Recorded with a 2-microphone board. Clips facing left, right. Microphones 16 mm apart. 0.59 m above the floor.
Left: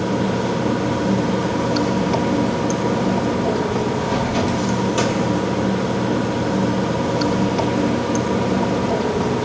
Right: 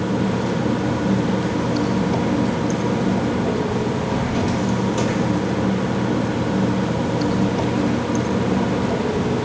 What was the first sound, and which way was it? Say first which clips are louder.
Running water: left 1 dB; 25° left (ahead or behind).